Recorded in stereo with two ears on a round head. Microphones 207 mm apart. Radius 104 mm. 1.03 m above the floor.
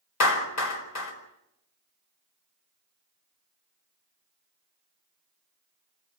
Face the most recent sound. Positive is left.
turn(degrees=80)